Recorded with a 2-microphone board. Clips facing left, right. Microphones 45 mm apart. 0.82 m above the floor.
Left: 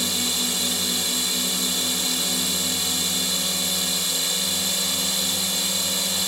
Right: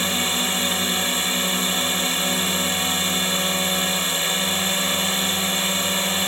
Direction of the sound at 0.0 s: 40° right (ahead or behind).